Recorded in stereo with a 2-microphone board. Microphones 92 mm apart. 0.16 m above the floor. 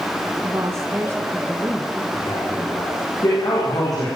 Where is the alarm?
No alarm in this recording.